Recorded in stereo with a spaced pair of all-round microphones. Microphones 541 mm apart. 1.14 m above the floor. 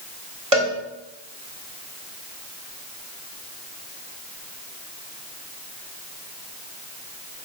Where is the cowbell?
75° right (ahead or behind), 1.5 m.